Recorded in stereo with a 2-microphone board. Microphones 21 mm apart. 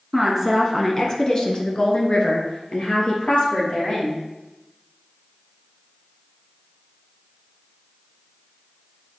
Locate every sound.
0.1 s a woman speaking: 5° right (ahead or behind), 1.4 m; by 4.2 s 50° left (ahead or behind), 4.5 m